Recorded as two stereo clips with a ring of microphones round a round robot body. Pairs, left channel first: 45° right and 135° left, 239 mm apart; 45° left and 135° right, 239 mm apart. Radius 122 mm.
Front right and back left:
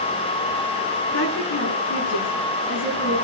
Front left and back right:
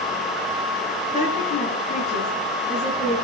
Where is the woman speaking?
20° right, 10 m.